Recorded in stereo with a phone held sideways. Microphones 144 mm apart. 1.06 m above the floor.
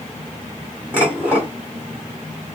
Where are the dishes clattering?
10° right (ahead or behind), 2.5 m.